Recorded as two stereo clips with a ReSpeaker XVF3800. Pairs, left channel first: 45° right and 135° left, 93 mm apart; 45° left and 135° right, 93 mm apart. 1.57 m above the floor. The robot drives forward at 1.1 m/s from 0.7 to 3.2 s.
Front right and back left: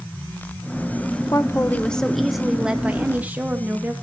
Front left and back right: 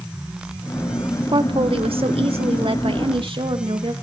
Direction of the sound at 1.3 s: 100° right.